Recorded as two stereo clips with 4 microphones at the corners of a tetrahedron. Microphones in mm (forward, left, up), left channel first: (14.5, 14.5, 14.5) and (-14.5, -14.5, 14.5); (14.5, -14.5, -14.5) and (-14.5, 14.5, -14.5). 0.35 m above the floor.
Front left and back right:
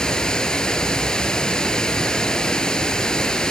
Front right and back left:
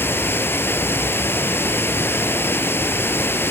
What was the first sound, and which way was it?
Running water, 25° right.